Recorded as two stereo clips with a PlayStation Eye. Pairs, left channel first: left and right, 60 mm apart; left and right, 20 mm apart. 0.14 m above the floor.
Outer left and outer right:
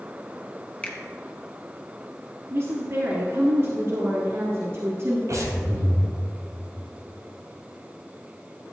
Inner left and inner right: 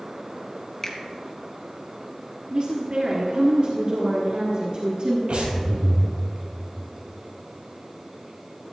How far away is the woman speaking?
About 1.5 m.